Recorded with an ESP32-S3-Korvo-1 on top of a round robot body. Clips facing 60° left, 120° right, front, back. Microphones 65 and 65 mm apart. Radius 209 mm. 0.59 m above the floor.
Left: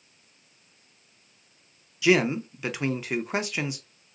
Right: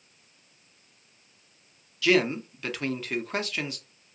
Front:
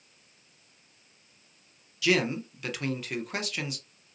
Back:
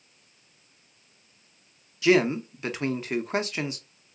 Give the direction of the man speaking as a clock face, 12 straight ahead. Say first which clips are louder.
Left 1 dB, back 5 dB; 8 o'clock.